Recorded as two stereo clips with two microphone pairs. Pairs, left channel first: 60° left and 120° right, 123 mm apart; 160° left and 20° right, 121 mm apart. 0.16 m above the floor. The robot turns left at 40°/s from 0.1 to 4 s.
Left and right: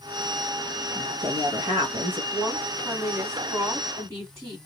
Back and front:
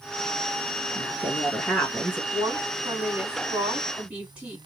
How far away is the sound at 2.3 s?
About 1.5 m.